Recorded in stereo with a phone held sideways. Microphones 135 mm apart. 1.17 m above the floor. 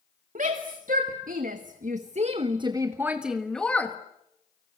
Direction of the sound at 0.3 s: 80° right.